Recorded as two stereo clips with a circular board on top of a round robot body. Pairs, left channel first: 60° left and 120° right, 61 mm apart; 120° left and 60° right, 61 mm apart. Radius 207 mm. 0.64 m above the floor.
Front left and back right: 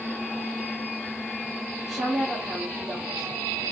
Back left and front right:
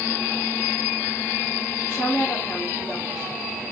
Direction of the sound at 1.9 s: 155° left.